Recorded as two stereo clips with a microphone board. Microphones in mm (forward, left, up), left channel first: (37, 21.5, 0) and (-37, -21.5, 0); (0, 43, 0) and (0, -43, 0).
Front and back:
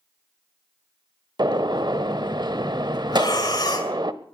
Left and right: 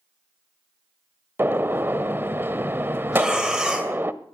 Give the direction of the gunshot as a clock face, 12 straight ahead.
5 o'clock.